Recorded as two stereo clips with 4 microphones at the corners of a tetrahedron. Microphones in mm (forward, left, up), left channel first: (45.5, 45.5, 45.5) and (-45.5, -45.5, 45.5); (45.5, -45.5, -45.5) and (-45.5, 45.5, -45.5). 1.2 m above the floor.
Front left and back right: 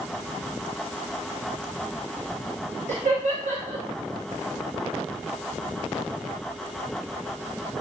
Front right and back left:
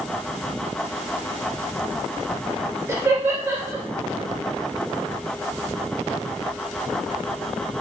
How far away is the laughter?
About 3 m.